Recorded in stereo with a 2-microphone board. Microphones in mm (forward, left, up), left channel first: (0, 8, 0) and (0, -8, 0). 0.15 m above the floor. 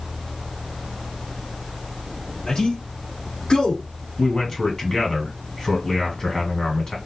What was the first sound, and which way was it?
A man speaking, 50° left (ahead or behind).